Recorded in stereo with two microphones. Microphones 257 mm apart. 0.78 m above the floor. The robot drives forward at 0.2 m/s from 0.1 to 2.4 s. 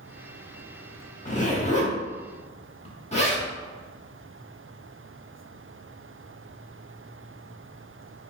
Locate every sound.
1.2 s a zipper: 30° left (ahead or behind), 1.0 m; by 3.5 s 25° left (ahead or behind), 1.2 m